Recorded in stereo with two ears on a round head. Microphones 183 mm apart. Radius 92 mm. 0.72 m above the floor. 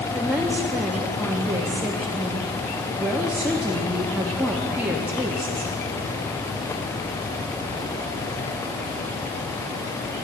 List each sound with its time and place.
0.1 s a woman speaking: 10° right (ahead or behind), 0.8 m